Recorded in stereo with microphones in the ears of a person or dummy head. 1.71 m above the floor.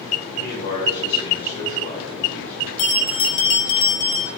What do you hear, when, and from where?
0.3 s a man speaking: 45° left (ahead or behind), 1.8 m; by 2.7 s 10° left (ahead or behind), 3 m
2.8 s a bell: 30° left (ahead or behind), 0.8 m